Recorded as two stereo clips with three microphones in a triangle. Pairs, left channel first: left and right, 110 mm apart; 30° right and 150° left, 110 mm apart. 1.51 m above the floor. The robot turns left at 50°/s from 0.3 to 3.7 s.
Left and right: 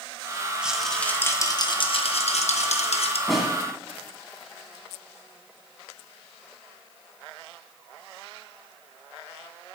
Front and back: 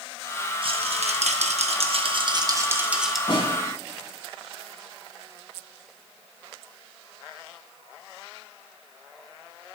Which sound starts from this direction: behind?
A rattle, at 0.6 s.